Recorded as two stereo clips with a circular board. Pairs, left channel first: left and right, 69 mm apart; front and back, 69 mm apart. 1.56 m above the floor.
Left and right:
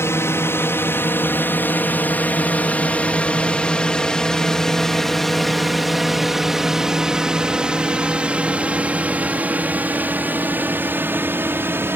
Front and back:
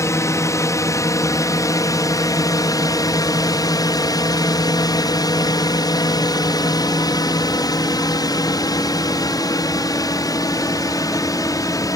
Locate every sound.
0.0 s a drone: 40° left; by 12.0 s 30° right